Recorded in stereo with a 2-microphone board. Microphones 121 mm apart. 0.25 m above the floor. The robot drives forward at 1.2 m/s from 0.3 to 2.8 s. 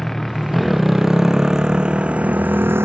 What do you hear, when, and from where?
0.0 s a motorcycle: 5° left (ahead or behind); by 2.9 s 20° right (ahead or behind)